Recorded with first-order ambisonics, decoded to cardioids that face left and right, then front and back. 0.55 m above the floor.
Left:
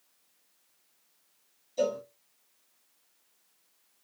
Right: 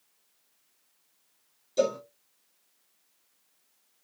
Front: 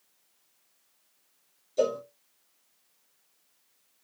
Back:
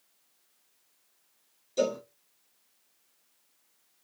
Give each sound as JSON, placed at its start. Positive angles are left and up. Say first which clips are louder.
{"t": 1.8, "sound": "a cowbell", "louder": "right 3 dB, front 2 dB", "azimuth_deg": -125, "distance_m": 2.0}